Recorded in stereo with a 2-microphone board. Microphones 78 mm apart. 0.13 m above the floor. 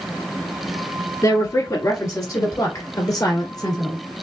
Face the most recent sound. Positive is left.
turn(degrees=55)  # may be behind; listen again after turning